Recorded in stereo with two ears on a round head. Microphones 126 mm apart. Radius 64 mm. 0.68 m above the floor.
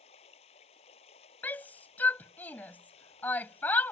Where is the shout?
10° left (ahead or behind).